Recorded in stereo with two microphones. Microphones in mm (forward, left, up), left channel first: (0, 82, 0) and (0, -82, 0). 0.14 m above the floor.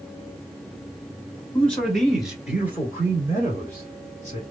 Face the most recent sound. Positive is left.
turn(degrees=-40)  # may be behind; listen again after turning